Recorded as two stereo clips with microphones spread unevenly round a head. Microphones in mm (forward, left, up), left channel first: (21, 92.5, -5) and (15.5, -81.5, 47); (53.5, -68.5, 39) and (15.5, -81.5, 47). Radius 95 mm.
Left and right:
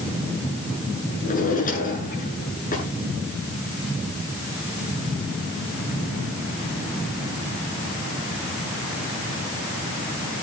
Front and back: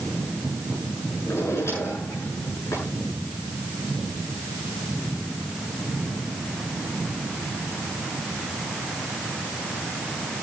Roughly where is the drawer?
Ahead left.